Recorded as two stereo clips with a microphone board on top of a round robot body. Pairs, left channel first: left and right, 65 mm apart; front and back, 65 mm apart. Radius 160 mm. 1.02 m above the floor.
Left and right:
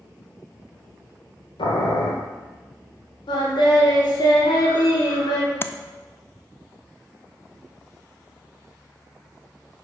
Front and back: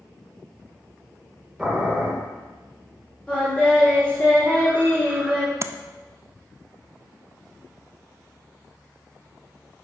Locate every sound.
1.6 s boiling: 90° left, 1.2 m
3.3 s singing: 80° left, 1.5 m
5.6 s tapping: 140° left, 0.5 m